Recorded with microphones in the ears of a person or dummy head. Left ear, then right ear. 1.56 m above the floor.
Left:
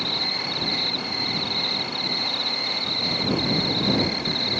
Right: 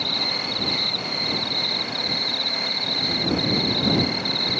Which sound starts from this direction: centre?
An insect, at 0.0 s.